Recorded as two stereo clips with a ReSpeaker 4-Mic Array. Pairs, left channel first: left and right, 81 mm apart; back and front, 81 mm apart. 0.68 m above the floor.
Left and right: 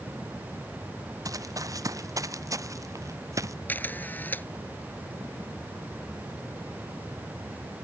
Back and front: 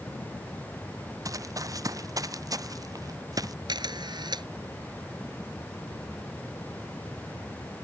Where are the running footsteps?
45° right; by 3.5 s 40° right.